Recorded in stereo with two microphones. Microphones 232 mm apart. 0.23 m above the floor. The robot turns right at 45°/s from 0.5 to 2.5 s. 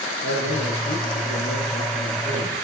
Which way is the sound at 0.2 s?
80° left.